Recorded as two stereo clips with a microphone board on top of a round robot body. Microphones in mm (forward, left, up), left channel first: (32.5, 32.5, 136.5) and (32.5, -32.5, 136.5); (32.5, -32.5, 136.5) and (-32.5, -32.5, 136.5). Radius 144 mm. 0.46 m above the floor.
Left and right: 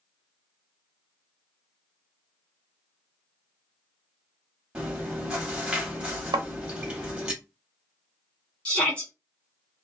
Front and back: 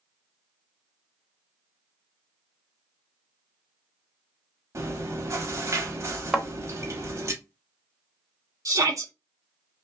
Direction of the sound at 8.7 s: 160° left.